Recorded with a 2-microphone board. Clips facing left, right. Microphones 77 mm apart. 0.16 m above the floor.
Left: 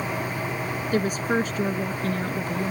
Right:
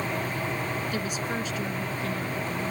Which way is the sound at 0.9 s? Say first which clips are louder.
Left 7 dB; 45° left (ahead or behind).